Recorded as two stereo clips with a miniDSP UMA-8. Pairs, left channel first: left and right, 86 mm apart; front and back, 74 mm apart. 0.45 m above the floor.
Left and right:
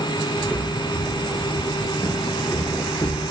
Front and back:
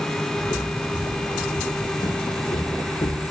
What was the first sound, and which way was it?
Footsteps, straight ahead.